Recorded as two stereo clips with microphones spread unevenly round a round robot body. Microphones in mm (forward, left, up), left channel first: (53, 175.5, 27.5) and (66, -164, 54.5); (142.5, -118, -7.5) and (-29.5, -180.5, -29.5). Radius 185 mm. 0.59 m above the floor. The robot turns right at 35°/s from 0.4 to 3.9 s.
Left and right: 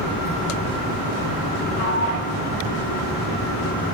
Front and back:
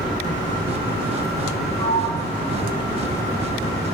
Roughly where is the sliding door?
Behind left.